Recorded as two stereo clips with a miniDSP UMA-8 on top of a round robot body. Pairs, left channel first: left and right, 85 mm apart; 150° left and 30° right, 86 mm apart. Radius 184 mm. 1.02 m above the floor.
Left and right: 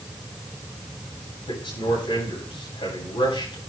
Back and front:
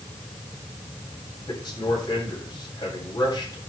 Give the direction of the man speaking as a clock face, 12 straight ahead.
8 o'clock.